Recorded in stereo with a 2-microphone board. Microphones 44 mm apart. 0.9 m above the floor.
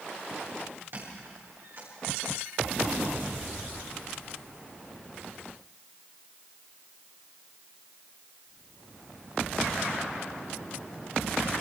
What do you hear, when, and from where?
0.9 s a squeak: 55° right (ahead or behind), 8.5 m